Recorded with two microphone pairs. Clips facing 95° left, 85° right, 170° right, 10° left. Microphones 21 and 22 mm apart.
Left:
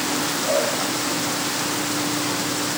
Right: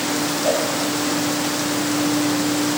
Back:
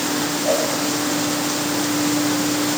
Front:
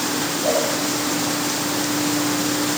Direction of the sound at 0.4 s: 55° right.